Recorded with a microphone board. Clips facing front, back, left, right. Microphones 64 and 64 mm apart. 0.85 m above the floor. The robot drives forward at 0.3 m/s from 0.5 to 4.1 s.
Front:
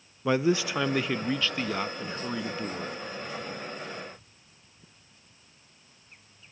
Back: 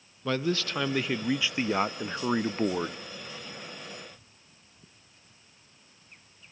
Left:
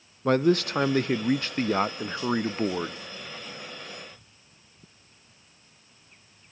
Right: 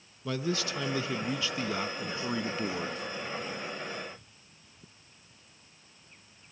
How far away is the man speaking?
About 0.6 m.